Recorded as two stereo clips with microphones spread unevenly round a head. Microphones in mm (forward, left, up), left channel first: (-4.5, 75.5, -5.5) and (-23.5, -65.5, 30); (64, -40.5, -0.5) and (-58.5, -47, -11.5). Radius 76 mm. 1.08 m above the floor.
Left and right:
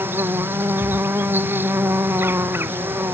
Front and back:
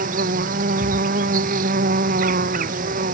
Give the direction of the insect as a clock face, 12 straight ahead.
6 o'clock.